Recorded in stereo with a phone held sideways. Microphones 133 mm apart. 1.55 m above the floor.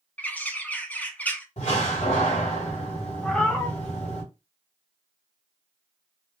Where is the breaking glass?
No breaking glass in this recording.